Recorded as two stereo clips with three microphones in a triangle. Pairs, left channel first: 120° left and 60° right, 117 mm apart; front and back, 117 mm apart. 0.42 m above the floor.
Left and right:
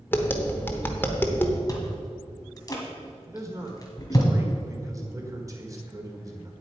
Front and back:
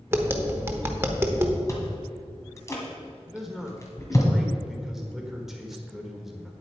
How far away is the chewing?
About 1.9 m.